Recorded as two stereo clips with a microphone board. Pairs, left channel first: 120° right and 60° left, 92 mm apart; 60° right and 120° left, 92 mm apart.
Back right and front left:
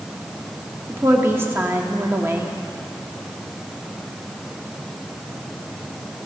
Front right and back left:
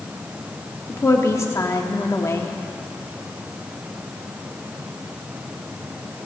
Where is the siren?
I don't hear a siren.